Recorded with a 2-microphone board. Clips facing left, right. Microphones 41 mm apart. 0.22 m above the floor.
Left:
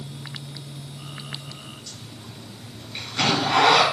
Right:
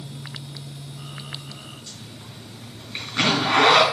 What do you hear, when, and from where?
1.9 s a zipper: 25° right (ahead or behind), 3.5 m